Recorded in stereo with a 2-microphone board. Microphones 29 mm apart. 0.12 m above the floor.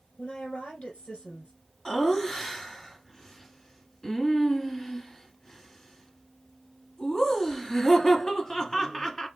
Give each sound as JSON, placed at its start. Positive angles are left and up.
{"t": 0.2, "sound": "a woman speaking", "side_deg": 45, "distance_m": 3.0}
{"t": 1.9, "sound": "laughter", "side_deg": 15, "distance_m": 1.1}